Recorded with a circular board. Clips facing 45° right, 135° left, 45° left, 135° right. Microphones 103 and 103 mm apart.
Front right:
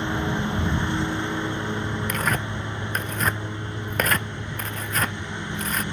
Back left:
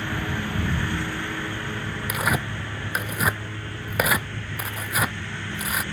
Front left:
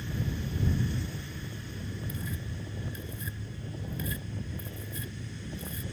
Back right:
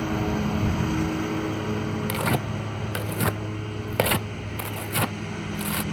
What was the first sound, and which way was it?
A lawn mower, 115° right.